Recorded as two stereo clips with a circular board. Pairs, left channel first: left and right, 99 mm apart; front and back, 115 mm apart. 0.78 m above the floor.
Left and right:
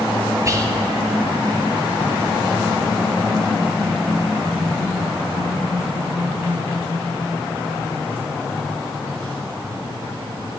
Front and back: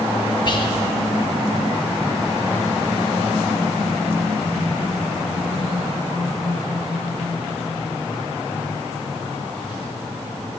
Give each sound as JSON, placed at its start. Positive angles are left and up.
{"t": 0.5, "sound": "whispering", "azimuth_deg": -40, "distance_m": 0.9}